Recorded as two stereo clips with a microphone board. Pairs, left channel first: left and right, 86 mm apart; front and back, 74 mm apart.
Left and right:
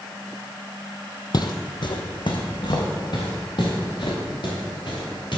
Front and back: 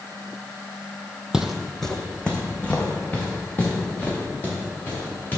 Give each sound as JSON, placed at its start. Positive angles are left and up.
{"t": 1.3, "sound": "footsteps", "azimuth_deg": 100, "distance_m": 0.6}